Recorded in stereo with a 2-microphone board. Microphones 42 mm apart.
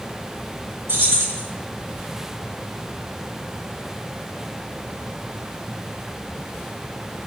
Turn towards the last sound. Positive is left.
turn(degrees=-80)